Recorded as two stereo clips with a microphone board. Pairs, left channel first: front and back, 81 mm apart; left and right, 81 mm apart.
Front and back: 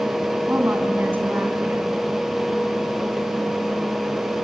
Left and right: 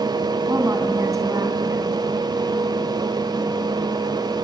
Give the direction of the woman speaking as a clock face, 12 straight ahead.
4 o'clock.